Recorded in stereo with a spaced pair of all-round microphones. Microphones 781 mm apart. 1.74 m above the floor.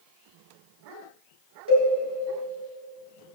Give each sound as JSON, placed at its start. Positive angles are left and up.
{"t": 1.7, "sound": "a cowbell", "side_deg": 15, "distance_m": 3.0}